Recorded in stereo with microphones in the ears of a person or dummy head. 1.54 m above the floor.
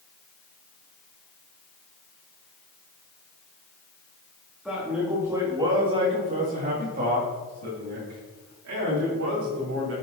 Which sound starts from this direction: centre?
A man speaking, at 4.7 s.